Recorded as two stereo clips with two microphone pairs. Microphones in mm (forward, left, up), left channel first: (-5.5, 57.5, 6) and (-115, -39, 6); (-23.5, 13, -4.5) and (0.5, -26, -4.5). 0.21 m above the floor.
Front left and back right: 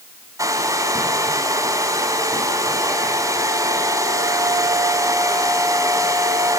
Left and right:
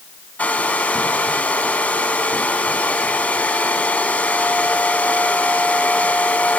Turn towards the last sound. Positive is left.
turn(degrees=165)